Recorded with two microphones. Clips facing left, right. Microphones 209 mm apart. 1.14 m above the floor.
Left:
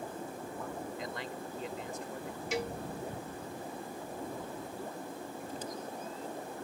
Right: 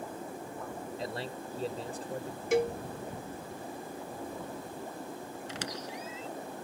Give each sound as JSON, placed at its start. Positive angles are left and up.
{"t": 1.0, "sound": "a man speaking", "side_deg": -35}
{"t": 2.5, "sound": "a cowbell", "side_deg": -55}
{"t": 5.5, "sound": "a squeak", "side_deg": -90}